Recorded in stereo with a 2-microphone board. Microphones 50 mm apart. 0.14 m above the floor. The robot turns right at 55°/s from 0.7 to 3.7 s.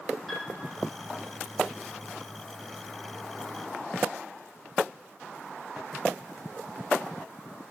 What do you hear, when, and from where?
0.3 s a piano: centre (ahead or behind), 2 m